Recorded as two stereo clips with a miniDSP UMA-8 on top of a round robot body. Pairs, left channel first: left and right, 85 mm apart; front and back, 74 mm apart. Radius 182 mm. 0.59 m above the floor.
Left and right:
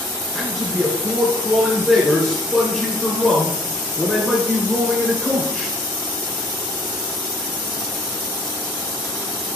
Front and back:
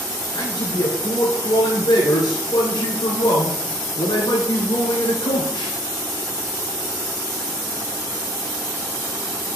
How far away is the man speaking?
About 3 m.